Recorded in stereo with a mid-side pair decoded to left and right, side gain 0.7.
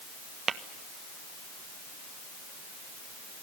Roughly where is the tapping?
Ahead right.